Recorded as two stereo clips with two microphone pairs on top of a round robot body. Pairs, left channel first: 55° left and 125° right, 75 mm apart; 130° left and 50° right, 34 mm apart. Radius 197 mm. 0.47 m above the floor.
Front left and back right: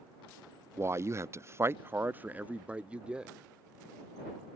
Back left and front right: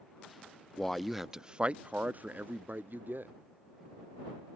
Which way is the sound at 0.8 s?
155° right.